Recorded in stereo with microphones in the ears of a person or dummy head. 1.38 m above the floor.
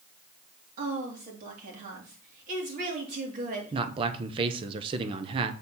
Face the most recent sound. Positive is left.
turn(degrees=-30)  # may be behind; listen again after turning